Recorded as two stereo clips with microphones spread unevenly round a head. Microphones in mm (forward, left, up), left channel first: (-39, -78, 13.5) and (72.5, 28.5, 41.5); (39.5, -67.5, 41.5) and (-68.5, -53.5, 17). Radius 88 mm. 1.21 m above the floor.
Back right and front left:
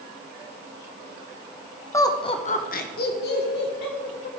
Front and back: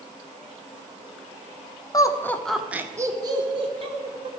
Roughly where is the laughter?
Ahead right.